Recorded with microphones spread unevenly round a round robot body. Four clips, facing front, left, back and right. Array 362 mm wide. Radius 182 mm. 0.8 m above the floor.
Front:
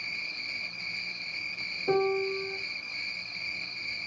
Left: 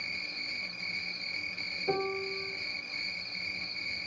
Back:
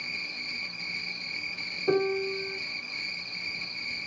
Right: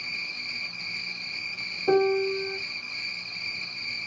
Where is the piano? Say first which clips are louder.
Right 11 dB, even; 115° right, 0.6 m.